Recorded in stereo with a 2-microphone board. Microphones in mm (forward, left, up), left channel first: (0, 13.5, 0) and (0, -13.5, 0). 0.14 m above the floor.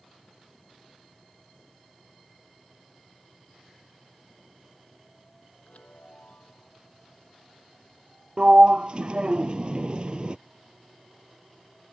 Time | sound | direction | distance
5.7 | a chime | 60° left (ahead or behind) | ?
8.4 | a sliding door | 40° right (ahead or behind) | ?